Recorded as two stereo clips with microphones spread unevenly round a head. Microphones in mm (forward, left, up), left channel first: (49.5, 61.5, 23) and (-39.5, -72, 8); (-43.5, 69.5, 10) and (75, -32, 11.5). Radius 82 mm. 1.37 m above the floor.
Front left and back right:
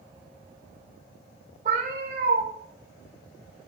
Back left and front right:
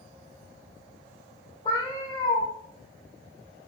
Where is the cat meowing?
160° right, 1.5 m.